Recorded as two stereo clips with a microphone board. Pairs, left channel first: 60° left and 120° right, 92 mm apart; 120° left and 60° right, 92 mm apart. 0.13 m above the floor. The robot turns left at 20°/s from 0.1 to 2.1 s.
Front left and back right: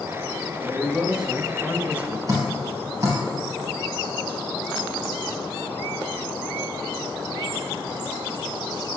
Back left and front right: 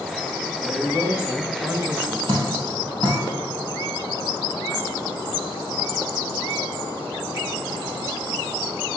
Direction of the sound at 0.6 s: 45° right.